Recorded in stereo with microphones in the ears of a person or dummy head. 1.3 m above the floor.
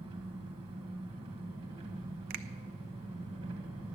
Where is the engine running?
30° right (ahead or behind), 1.9 m.